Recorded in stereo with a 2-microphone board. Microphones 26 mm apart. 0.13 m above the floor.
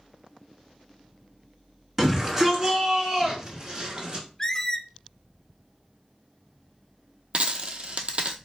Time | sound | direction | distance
2.0 | a shout | 15° right (ahead or behind) | 1.7 m
4.4 | a squeak | 25° left (ahead or behind) | 0.6 m
7.3 | a dropped coin | 45° right (ahead or behind) | 0.6 m